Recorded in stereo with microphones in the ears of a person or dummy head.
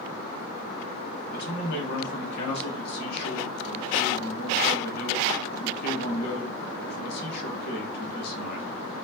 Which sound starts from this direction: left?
A man speaking, at 1.3 s.